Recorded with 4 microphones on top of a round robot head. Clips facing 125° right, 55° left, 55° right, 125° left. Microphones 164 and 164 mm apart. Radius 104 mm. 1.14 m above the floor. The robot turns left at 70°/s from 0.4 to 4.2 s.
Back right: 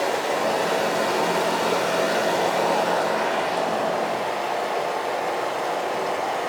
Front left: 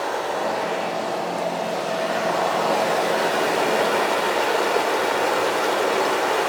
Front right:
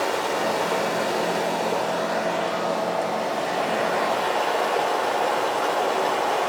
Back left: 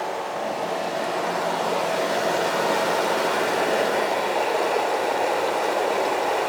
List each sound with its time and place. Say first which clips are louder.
0.0 s running water: back right 2 dB, front right 3 dB; 50° right, 3.5 m; by 6.5 s 45° left, 3.5 m